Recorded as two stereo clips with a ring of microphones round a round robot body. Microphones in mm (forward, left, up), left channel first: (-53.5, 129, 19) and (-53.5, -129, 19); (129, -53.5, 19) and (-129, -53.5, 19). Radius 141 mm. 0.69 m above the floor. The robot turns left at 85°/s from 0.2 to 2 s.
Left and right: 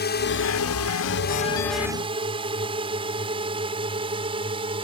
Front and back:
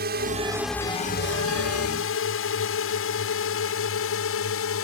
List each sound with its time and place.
0.0 s a drone: 130° left; by 4.8 s 20° right